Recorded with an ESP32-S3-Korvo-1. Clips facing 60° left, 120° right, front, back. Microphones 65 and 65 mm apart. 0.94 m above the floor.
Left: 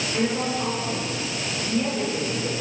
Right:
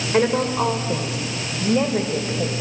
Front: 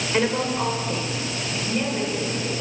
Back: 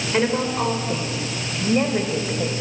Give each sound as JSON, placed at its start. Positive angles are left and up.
{"t": 0.1, "sound": "a woman speaking", "azimuth_deg": -90, "distance_m": 3.0}